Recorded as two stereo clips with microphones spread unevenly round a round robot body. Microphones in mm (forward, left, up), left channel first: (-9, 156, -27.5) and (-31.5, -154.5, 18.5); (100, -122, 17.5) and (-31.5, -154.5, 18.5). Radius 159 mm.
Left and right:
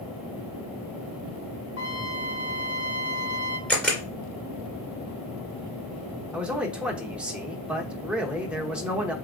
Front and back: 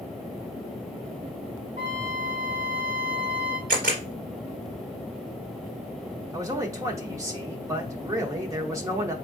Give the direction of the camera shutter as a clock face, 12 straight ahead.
6 o'clock.